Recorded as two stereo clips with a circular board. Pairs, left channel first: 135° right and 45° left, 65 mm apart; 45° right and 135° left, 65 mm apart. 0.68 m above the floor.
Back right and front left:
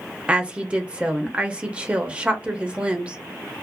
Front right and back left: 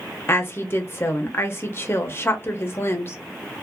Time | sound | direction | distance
0.3 | a woman speaking | 20° right | 0.6 m